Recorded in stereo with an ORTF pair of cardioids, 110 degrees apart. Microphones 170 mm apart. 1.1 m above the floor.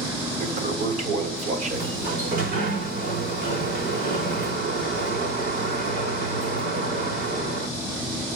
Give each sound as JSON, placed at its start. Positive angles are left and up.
{"t": 0.4, "sound": "a toilet flushing", "azimuth_deg": -50, "distance_m": 3.5}
{"t": 1.7, "sound": "a sliding door", "azimuth_deg": -70, "distance_m": 4.5}